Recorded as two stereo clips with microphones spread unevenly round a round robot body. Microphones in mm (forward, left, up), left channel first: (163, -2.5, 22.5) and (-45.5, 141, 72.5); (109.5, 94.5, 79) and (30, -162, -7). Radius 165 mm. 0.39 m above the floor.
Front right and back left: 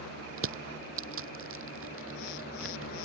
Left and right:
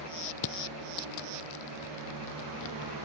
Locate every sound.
0.4 s crushing: 110° left